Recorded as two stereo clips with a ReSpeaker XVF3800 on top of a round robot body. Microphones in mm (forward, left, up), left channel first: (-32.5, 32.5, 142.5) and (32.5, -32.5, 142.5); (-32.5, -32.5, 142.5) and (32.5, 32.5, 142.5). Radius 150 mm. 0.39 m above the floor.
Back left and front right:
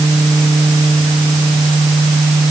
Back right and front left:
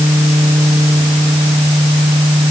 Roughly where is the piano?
I don't hear a piano.